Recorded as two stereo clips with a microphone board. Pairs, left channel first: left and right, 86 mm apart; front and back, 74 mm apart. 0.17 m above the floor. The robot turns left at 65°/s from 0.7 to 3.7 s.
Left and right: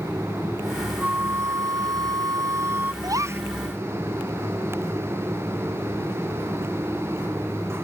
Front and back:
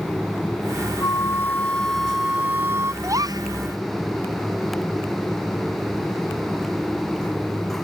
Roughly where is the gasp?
Behind right.